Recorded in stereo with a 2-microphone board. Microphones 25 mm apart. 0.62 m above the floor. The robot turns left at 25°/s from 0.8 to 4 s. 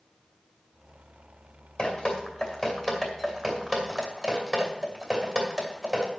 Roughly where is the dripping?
Left.